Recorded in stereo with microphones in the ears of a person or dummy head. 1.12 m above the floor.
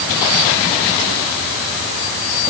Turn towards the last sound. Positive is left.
No sound to turn to.